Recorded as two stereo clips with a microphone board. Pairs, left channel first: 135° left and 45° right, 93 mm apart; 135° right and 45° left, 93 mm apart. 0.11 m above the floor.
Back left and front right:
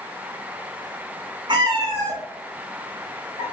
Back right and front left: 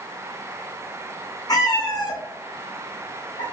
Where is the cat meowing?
85° right, 0.8 m.